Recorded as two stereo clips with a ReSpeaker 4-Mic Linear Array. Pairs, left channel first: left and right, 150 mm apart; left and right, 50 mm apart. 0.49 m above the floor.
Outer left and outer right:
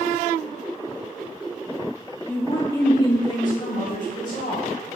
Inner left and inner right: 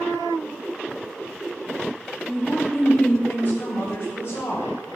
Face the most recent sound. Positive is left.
turn(degrees=65)  # may be behind; listen again after turning